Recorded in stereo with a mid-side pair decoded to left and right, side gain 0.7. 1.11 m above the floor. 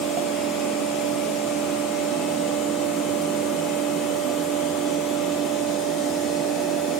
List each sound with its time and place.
0.0 s a fan: 50° right, 1.2 m